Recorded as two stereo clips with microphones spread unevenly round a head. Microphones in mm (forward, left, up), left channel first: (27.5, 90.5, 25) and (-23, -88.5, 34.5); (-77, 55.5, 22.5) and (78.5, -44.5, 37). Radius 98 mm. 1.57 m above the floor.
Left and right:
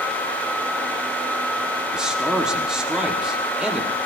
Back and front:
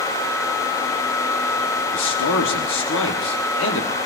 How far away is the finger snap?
No finger snap in this recording.